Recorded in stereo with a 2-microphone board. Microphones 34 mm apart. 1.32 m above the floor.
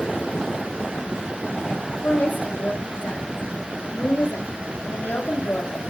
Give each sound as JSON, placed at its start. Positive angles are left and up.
{"t": 2.0, "sound": "a woman speaking", "side_deg": 70, "distance_m": 4.0}